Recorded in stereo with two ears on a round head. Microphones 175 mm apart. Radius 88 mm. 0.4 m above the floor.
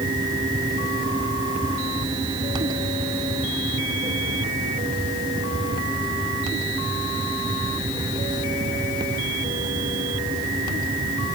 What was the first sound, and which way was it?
Only background noise.